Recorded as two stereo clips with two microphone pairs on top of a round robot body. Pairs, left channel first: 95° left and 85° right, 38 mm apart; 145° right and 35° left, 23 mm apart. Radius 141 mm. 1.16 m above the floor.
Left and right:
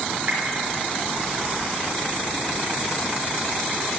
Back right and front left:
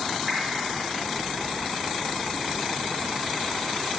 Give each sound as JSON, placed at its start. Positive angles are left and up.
{"t": 0.3, "sound": "a whoosh", "azimuth_deg": -40, "distance_m": 1.8}